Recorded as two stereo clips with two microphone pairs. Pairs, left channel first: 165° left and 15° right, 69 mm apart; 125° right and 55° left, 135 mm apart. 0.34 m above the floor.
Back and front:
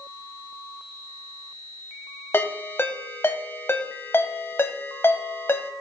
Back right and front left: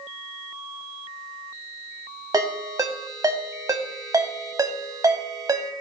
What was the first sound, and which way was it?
A ringtone, 115° left.